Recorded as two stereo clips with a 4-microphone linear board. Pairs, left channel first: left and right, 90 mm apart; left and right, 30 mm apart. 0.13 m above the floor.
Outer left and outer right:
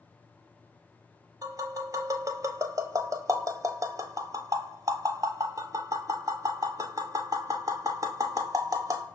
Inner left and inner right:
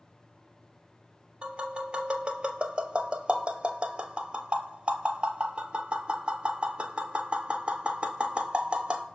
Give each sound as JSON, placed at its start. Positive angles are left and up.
{"t": 1.4, "sound": "tapping", "side_deg": -40, "distance_m": 0.6}